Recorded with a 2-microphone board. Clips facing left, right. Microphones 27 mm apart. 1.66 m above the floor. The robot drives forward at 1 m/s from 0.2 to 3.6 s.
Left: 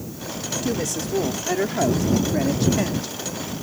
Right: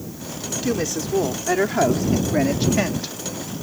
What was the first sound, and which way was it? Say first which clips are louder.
A woman speaking: right 3 dB; 25° right (ahead or behind).